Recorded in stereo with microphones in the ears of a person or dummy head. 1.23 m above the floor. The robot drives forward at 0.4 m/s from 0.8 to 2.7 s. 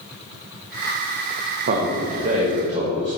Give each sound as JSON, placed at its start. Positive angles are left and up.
{"t": 1.7, "sound": "a man speaking", "side_deg": -55, "distance_m": 0.9}